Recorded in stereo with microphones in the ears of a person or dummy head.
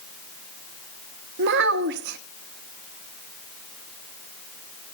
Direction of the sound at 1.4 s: 65° right (ahead or behind).